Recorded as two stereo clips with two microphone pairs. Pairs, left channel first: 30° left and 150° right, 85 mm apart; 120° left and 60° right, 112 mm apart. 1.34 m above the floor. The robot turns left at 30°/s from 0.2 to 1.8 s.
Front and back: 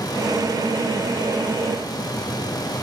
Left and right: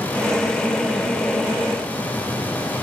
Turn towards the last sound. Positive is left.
No sound to turn to.